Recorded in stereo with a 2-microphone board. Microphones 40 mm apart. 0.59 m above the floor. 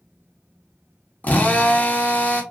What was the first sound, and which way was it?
A drill, 45° left (ahead or behind).